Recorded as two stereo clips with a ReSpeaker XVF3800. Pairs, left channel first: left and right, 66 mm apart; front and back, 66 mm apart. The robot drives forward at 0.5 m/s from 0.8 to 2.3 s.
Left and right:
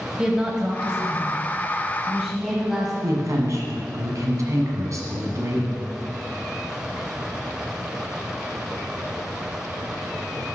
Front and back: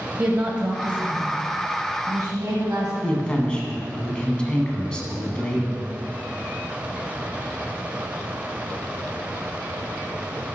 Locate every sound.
0.2 s a woman speaking: 140° right, 1.0 m; by 2.9 s 165° right, 1.4 m
3.0 s a woman speaking: 75° right, 1.7 m